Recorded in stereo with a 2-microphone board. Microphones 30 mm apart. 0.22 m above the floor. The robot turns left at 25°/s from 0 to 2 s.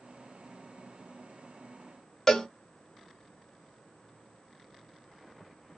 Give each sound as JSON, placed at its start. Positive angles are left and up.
{"t": 2.3, "sound": "a cowbell", "side_deg": 15, "distance_m": 0.8}